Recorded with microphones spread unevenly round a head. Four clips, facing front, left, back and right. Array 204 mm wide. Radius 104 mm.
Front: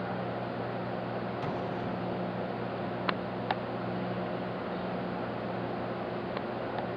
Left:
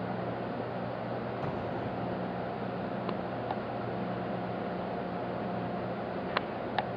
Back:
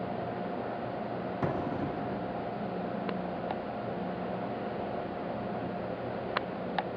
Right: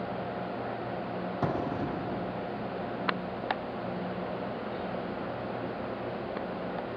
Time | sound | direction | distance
1.4 | an explosion | 110° right | 1.0 m